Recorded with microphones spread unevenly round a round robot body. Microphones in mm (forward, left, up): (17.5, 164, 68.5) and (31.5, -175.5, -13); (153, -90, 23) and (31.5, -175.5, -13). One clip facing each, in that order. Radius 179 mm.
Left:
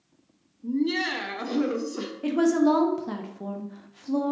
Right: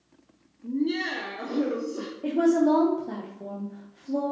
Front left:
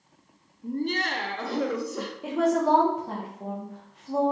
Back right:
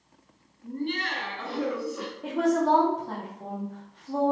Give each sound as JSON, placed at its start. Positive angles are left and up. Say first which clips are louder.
{"t": 0.6, "sound": "laughter", "louder": "left 1 dB, front left 3 dB", "azimuth_deg": 30, "distance_m": 0.6}
{"t": 2.2, "sound": "a woman speaking", "louder": "even, even", "azimuth_deg": 140, "distance_m": 0.5}